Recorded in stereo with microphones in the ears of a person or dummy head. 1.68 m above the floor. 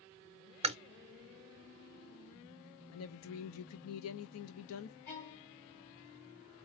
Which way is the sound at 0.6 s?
35° right (ahead or behind).